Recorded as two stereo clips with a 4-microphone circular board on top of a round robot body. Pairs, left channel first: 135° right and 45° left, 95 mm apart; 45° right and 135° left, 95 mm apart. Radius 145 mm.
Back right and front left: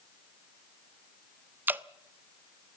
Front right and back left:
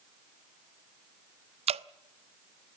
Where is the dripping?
115° left, 0.6 m.